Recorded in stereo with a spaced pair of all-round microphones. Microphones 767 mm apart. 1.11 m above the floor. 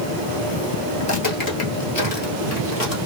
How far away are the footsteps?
About 1.3 m.